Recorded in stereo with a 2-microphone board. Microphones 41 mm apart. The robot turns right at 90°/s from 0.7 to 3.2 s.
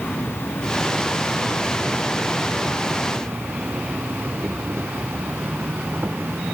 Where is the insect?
65° left; by 6.5 s 70° right.